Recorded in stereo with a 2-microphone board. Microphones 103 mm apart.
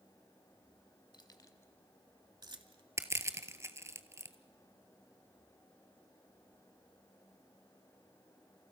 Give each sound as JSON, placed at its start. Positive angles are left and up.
{"t": 1.1, "sound": "keys jangling", "side_deg": 50, "distance_m": 1.3}
{"t": 3.0, "sound": "crushing", "side_deg": -25, "distance_m": 0.8}